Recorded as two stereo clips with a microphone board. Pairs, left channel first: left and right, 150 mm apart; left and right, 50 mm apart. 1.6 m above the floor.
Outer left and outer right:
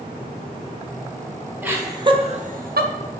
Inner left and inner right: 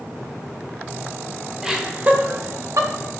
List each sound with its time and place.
1.6 s laughter: 10° right (ahead or behind), 1.2 m; by 2.9 s 80° right, 0.9 m